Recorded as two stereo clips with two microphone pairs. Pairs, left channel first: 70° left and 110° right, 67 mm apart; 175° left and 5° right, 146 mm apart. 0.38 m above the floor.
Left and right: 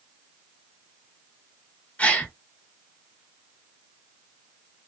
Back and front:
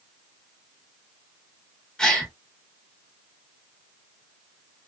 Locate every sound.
2.0 s a gasp: 100° left, 0.7 m